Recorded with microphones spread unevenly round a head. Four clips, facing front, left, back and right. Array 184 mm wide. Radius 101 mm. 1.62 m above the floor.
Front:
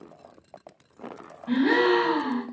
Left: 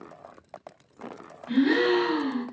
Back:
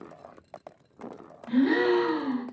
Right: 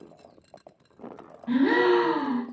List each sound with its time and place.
1.5 s a gasp: 35° right, 1.3 m